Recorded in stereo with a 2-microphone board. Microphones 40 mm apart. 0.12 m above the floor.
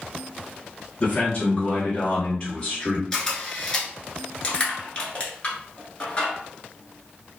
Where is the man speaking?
30° left (ahead or behind), 1.4 m; by 3.0 s 15° left (ahead or behind), 1.8 m.